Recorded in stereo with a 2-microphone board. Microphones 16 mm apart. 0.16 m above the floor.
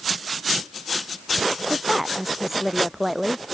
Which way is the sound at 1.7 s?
20° right (ahead or behind).